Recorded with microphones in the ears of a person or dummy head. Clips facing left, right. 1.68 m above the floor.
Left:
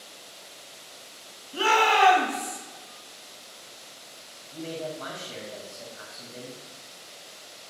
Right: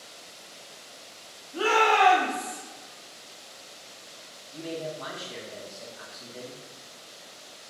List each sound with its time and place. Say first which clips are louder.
1.5 s a shout: even; 40° left (ahead or behind), 2 m
4.5 s a man speaking: even; 50° left (ahead or behind), 2 m